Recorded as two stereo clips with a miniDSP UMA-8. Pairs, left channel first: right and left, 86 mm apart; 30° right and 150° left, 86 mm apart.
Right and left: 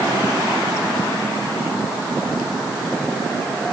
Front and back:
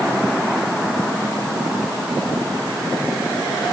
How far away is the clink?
I don't hear a clink.